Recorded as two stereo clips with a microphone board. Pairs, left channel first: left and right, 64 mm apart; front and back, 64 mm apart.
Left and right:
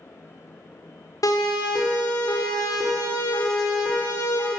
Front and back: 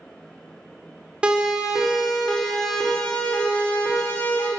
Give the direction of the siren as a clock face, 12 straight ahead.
8 o'clock.